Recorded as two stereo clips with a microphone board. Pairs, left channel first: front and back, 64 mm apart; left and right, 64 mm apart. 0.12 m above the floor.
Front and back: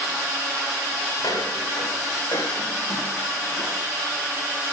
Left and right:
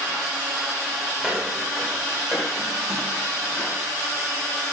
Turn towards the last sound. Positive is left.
turn(degrees=35)